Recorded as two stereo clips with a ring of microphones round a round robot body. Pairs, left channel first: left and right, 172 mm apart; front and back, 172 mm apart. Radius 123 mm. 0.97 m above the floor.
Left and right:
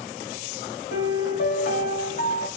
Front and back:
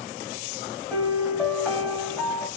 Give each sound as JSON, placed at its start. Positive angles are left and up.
{"t": 0.9, "sound": "a piano", "azimuth_deg": 85, "distance_m": 1.7}